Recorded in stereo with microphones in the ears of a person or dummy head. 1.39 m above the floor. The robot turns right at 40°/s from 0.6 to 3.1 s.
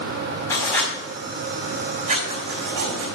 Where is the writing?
15° left (ahead or behind), 4.5 m; by 3.2 s 80° right, 4.5 m.